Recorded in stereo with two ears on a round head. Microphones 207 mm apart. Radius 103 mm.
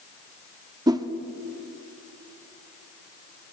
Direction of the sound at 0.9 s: 15° right (ahead or behind).